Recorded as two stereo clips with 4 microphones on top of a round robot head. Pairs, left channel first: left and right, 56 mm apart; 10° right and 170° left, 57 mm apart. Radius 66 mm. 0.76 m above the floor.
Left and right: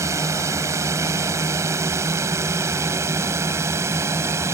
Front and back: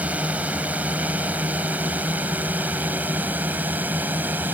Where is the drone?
120° right; by 4.5 s 125° right.